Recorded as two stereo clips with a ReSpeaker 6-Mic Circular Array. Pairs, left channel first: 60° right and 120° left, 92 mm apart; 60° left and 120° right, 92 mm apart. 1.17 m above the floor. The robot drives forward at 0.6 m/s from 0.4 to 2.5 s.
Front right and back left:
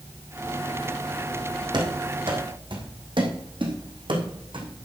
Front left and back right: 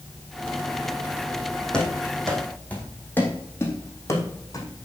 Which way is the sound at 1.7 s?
140° left.